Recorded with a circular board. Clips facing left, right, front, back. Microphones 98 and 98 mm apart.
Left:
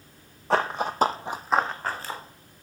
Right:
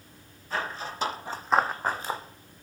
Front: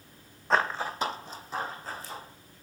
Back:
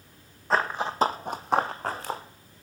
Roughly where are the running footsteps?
Left.